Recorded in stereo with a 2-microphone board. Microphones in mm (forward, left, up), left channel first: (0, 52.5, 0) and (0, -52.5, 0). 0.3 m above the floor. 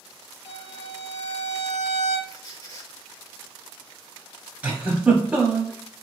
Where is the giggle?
10° right (ahead or behind), 0.7 m.